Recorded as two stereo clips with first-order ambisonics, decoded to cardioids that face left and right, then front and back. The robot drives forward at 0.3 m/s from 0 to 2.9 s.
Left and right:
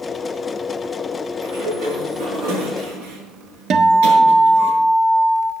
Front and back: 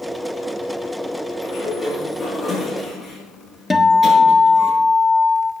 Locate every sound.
1.4 s a sliding door: 90° right, 7.5 m; by 4.7 s 95° right, 7.5 m
3.7 s a guitar: 85° right, 1.3 m